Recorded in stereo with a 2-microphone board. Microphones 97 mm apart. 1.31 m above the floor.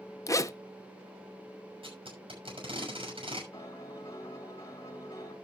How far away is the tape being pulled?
About 6 m.